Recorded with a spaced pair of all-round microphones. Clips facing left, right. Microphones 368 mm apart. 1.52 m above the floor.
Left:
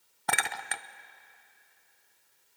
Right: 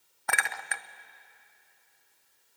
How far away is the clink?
About 0.5 m.